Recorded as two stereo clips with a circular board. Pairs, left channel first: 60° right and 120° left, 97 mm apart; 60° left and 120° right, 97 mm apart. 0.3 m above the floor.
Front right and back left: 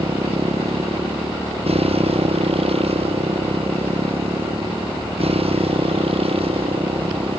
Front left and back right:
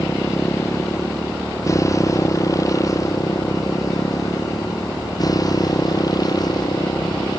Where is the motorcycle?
120° left; by 7.4 s 105° left.